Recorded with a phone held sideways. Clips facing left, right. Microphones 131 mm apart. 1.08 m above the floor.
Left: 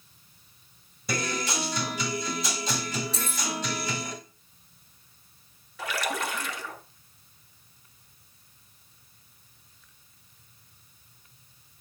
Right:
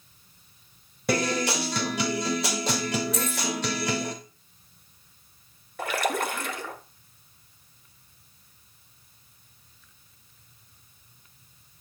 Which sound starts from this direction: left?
Keys jangling, at 3.1 s.